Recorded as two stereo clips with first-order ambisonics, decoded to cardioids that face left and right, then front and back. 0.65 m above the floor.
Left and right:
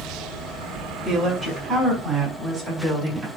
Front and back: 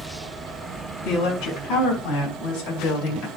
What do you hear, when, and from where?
1.0 s a woman speaking: 5° right, 5.5 m; by 3.3 s 15° right, 4.5 m